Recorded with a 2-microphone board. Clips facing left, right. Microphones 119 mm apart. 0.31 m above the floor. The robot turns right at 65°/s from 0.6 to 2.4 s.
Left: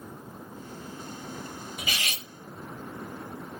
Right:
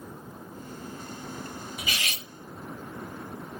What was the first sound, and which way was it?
Cutlery clinking, 50° left (ahead or behind).